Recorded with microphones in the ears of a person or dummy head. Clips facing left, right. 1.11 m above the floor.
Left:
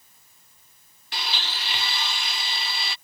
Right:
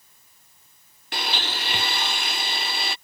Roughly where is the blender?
Right.